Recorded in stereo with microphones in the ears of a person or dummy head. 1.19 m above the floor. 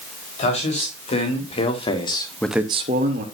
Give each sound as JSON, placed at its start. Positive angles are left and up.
{"t": 0.4, "sound": "a man speaking", "side_deg": 40, "distance_m": 3.5}